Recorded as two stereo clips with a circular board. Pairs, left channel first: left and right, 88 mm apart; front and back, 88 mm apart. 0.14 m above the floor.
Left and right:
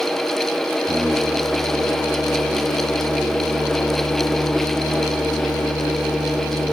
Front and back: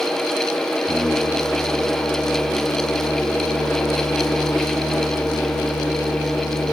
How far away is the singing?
About 4 m.